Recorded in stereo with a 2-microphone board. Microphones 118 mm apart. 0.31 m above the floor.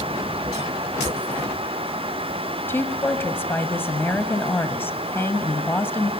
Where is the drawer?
I don't hear a drawer.